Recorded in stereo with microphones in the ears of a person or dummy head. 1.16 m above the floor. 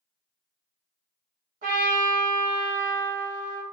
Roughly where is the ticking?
No ticking in this recording.